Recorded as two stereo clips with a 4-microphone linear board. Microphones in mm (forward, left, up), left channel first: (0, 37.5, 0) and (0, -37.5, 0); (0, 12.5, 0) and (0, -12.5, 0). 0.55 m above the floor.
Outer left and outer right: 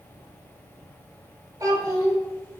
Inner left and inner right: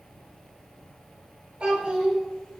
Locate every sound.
1.6 s a child speaking: 55° right (ahead or behind), 1.2 m